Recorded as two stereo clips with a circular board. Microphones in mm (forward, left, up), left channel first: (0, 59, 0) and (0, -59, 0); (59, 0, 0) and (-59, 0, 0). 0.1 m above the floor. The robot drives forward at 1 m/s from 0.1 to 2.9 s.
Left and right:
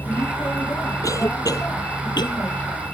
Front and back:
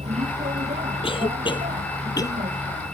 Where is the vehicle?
165° left.